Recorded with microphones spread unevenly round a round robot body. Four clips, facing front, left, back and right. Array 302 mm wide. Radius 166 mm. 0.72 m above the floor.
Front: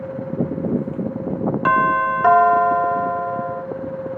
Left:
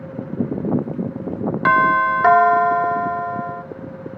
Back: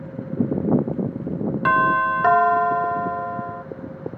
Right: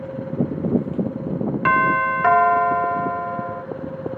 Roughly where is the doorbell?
Ahead left.